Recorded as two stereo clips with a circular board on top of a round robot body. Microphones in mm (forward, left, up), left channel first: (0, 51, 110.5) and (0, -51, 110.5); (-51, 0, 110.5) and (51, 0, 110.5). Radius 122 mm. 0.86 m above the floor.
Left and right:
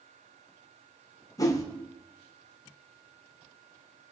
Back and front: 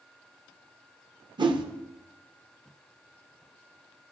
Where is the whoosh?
35° left, 1.2 m.